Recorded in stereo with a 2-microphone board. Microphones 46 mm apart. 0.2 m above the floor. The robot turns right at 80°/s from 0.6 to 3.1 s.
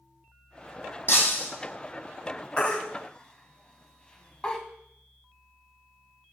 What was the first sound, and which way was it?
Breaking glass, 120° left.